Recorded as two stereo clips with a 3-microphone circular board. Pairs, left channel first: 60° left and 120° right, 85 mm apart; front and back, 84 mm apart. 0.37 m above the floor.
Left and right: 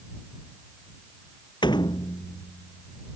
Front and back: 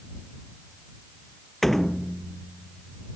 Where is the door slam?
90° left.